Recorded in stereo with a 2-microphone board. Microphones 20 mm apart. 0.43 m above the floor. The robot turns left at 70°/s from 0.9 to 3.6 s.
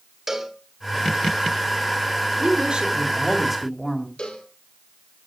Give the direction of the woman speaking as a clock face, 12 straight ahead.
3 o'clock.